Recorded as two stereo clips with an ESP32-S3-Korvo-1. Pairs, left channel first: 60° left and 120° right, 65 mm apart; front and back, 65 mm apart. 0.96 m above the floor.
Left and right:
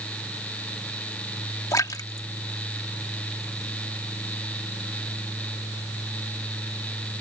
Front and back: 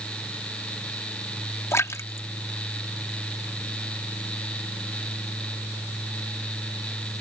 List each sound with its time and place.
1.7 s a splash: 40° left